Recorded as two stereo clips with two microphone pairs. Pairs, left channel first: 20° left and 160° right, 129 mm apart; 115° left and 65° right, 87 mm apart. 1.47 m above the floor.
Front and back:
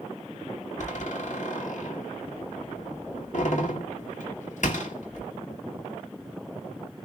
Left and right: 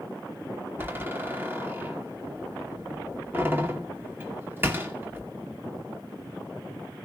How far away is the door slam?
About 2.5 m.